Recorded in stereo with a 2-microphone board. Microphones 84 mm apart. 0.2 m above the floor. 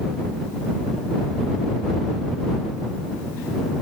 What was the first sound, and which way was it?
Only background noise.